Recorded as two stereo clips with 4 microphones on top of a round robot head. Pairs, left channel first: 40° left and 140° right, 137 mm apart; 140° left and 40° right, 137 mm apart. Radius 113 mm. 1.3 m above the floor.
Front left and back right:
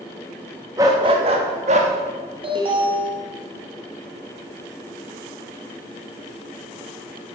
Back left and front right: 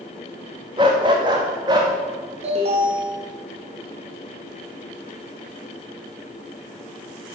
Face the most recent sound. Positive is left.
turn(degrees=-85)